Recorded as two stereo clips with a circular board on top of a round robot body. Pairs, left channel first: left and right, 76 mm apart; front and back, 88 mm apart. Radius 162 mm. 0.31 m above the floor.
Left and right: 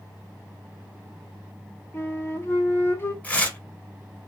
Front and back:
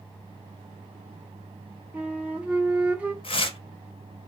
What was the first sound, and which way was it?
A flute, 120° left.